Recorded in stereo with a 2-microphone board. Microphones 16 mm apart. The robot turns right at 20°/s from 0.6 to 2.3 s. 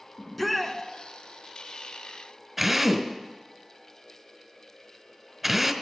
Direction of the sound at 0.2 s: Centre (ahead or behind).